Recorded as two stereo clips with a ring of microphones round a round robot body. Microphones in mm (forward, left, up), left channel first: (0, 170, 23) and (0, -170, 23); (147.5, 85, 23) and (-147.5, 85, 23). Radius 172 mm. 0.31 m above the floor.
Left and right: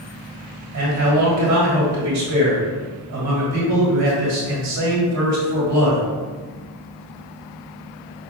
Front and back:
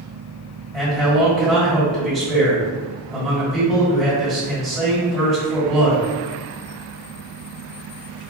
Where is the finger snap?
No finger snap in this recording.